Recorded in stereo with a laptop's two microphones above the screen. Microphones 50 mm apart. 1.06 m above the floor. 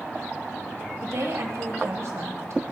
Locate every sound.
1.0 s a woman speaking: 70° right (ahead or behind), 1.6 m